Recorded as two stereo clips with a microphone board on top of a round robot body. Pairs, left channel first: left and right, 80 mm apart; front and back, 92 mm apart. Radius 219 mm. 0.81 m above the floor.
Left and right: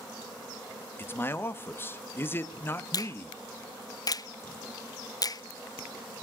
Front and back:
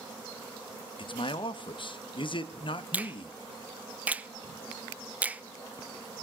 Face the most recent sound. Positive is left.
turn(degrees=110)